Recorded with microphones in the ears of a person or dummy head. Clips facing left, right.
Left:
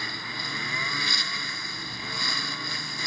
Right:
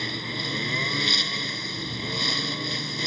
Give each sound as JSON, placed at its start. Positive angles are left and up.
{"t": 0.0, "sound": "a lawn mower", "side_deg": -20}